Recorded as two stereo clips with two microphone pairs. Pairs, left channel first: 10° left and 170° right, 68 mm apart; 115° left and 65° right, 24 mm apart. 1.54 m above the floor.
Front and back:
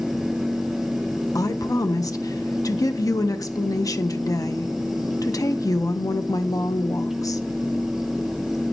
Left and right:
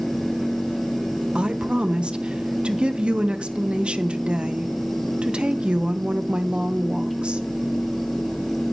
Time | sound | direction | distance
1.4 | a woman speaking | 20° right | 1.3 m